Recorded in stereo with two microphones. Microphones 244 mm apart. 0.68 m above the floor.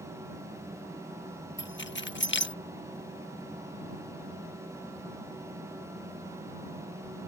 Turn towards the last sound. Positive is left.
turn(degrees=50)  # may be behind; listen again after turning